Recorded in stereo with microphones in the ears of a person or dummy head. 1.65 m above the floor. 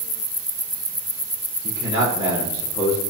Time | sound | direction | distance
1.6 | a man speaking | 30° left (ahead or behind) | 6.5 m